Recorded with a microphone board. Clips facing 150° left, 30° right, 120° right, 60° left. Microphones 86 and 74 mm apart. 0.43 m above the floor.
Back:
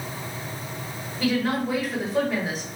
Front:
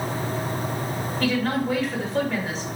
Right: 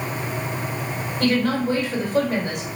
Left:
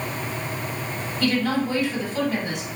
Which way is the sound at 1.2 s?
130° right.